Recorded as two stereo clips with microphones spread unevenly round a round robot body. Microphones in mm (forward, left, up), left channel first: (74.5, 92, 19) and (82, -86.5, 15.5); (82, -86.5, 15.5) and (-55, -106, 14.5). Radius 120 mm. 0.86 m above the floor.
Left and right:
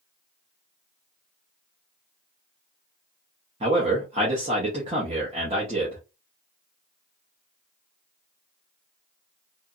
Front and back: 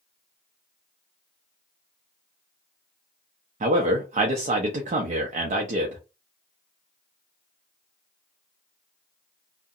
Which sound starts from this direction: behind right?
A man speaking, at 3.6 s.